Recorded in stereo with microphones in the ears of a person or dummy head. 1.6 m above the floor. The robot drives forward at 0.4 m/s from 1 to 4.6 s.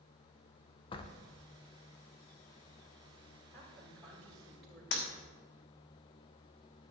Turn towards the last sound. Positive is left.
turn(degrees=65)  # may be behind; listen again after turning